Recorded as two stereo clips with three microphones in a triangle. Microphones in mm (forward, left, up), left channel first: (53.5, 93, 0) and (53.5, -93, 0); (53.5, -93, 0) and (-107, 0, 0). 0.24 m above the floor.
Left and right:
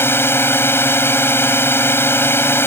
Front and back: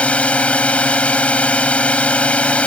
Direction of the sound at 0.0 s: 40° left.